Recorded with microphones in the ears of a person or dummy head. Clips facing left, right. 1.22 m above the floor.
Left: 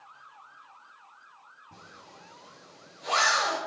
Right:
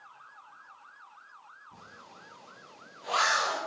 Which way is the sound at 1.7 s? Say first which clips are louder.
Left 2 dB; 50° left (ahead or behind).